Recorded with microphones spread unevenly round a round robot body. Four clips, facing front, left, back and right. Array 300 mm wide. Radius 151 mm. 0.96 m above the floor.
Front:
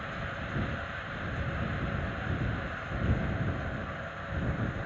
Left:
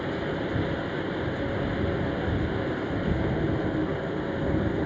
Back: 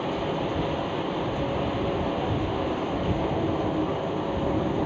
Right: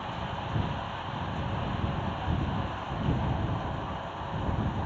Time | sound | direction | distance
0.0 | running water | 140° left | ?